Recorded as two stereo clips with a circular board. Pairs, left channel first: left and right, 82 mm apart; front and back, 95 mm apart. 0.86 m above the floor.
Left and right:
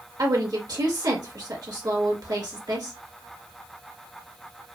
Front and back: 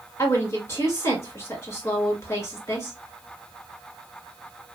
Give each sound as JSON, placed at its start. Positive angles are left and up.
{"t": 0.2, "sound": "a woman speaking", "azimuth_deg": -60, "distance_m": 1.5}